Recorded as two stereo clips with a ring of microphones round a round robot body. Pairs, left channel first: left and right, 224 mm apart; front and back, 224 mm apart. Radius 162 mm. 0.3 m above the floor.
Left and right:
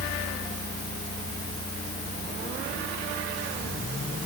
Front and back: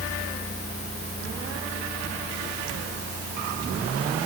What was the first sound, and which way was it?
Only background noise.